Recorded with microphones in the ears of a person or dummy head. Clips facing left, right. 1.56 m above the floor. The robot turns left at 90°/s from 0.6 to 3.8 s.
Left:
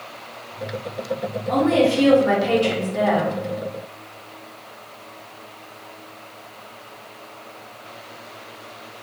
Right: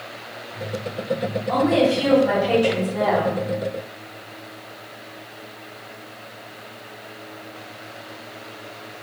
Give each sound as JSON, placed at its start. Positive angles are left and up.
{"t": 1.5, "sound": "a woman speaking", "azimuth_deg": 150, "distance_m": 1.3}